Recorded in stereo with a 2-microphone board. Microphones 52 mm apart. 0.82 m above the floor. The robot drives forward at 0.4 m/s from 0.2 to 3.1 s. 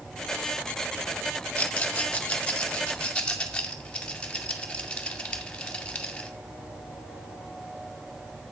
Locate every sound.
1.6 s a rattle: 30° left (ahead or behind), 1.3 m; by 6.3 s 20° left (ahead or behind), 1.8 m